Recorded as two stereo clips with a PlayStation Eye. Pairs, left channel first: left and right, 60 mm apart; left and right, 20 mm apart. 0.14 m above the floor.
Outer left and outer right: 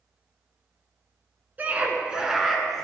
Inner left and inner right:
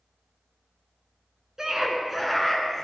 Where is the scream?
30° right (ahead or behind), 1.6 m; by 2.9 s 10° left (ahead or behind), 1.7 m.